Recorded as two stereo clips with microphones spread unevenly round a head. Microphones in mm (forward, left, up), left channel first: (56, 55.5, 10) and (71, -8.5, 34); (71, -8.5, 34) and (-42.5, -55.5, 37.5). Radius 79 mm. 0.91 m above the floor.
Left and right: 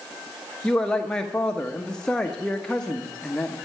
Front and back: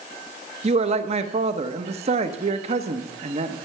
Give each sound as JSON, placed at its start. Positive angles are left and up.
{"t": 0.6, "sound": "a man speaking", "azimuth_deg": 170, "distance_m": 1.0}